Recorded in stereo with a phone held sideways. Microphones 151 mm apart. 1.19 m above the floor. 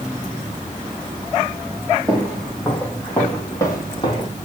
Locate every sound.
2.1 s footsteps: centre (ahead or behind), 3.5 m; by 4.3 s 35° left (ahead or behind), 1.9 m